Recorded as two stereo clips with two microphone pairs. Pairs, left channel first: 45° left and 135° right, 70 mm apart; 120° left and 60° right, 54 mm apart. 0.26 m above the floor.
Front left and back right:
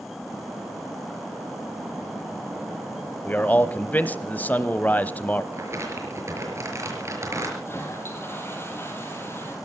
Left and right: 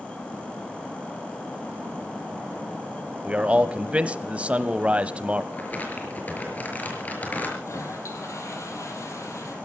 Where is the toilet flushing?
100° left, 4.5 m.